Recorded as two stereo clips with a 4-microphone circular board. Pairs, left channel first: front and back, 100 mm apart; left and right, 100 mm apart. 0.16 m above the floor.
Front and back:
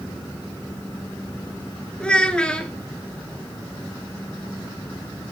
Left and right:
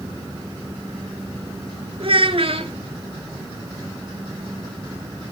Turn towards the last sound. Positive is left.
turn(degrees=-80)